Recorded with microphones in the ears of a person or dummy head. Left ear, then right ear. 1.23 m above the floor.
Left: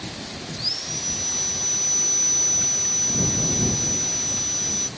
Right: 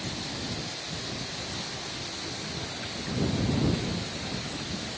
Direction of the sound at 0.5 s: 80° left.